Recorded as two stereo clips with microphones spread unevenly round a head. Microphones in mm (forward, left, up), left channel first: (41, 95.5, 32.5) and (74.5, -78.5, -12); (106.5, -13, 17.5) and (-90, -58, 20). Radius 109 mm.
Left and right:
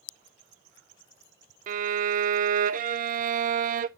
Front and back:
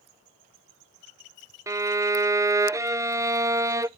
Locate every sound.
1.7 s a violin: 95° right, 0.5 m